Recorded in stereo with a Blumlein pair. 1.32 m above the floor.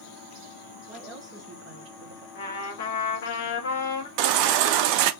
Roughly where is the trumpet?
Ahead left.